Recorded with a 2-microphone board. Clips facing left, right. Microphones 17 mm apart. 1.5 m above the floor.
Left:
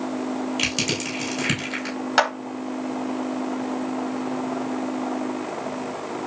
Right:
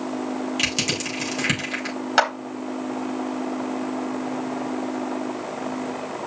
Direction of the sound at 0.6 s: 5° right (ahead or behind).